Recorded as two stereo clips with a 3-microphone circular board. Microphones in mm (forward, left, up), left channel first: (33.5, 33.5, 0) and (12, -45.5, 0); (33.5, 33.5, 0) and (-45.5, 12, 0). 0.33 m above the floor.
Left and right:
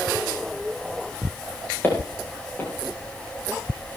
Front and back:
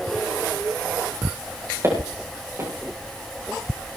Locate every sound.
1.8 s footsteps: 140° left, 8.5 m